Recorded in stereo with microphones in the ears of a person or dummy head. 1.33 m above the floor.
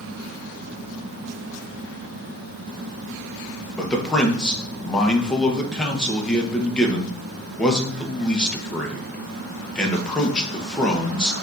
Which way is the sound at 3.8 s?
5° left (ahead or behind).